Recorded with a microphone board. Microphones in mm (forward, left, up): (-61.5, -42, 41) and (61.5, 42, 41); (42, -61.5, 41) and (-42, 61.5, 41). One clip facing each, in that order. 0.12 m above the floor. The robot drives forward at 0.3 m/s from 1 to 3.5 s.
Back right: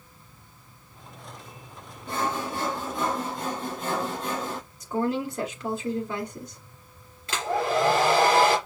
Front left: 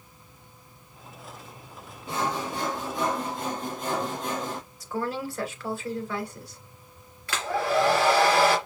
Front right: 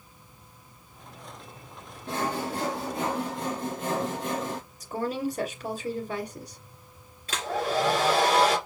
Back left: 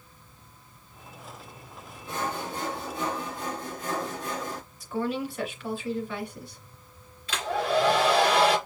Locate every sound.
2.1 s sawing: 50° right, 3 m; by 4.6 s 55° right, 3 m
4.8 s a woman speaking: 85° right, 2 m
7.3 s a hair dryer: 85° right, 2.5 m